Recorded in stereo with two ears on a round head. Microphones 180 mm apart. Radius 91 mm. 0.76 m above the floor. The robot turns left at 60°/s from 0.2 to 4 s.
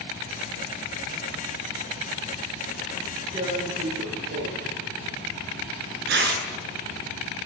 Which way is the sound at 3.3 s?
15° right (ahead or behind).